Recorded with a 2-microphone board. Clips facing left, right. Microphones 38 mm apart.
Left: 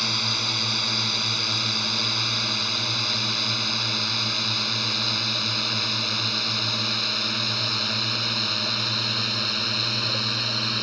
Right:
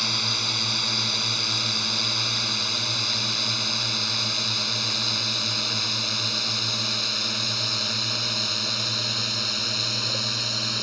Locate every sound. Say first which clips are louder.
0.0 s a drone: left 1 dB; 5° left (ahead or behind); by 10.8 s 15° left (ahead or behind)